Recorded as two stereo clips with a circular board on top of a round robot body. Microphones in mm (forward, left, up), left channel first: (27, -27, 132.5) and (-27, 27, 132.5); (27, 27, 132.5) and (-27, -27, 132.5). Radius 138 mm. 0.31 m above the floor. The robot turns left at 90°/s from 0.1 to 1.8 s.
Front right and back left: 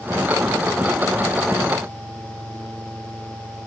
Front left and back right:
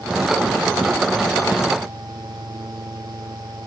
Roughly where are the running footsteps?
I don't hear running footsteps.